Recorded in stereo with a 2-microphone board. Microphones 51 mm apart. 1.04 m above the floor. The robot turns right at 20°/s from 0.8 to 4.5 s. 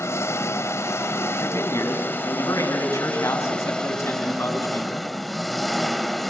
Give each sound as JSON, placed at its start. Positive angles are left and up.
{"t": 0.0, "sound": "an engine running", "azimuth_deg": 105, "distance_m": 1.6}
{"t": 1.4, "sound": "a man speaking", "azimuth_deg": 60, "distance_m": 8.5}